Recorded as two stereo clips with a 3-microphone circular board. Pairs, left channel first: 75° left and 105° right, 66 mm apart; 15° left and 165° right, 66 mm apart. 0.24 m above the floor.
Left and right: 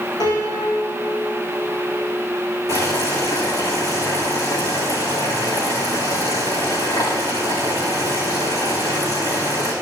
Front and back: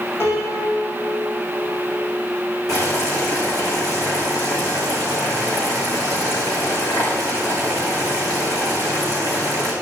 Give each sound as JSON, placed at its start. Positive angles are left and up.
{"t": 0.2, "sound": "a piano", "azimuth_deg": 60, "distance_m": 6.5}
{"t": 2.7, "sound": "boiling", "azimuth_deg": 45, "distance_m": 6.5}